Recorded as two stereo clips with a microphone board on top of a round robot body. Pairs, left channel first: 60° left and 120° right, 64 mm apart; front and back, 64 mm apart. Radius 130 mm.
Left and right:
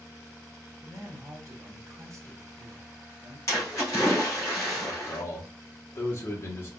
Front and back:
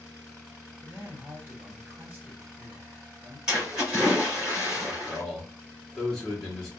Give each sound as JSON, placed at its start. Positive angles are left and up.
{"t": 0.8, "sound": "a man speaking", "azimuth_deg": -135, "distance_m": 1.1}
{"t": 3.5, "sound": "a splash", "azimuth_deg": 100, "distance_m": 2.5}
{"t": 4.9, "sound": "a man speaking", "azimuth_deg": 80, "distance_m": 1.1}